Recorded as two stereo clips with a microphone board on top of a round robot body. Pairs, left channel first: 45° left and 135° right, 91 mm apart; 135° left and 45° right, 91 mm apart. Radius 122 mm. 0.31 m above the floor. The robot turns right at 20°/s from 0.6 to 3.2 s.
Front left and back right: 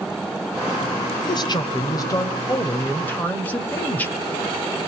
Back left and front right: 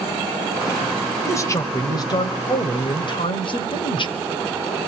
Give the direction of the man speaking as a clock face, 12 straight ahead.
9 o'clock.